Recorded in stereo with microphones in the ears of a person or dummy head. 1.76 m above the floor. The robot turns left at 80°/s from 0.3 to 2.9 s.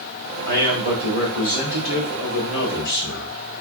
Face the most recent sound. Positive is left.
turn(degrees=60)